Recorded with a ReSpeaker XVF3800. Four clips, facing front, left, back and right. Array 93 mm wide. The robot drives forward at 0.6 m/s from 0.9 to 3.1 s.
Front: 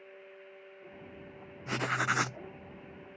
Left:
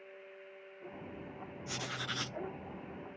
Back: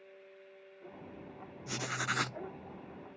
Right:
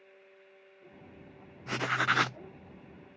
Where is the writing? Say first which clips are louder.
Right 13 dB, front 6 dB; 45° right; by 2.4 s 85° right.